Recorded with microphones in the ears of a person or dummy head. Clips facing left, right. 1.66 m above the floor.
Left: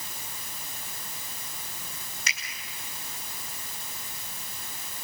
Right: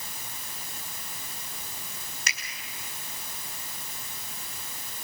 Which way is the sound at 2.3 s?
40° right (ahead or behind).